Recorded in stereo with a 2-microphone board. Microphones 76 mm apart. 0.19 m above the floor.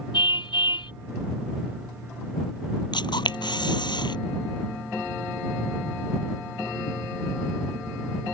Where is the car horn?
80° left.